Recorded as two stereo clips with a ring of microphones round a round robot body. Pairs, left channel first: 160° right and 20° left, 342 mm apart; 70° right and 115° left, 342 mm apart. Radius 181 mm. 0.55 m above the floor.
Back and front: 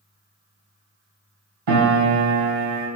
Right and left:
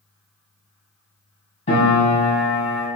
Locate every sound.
1.7 s a piano: 5° left, 1.1 m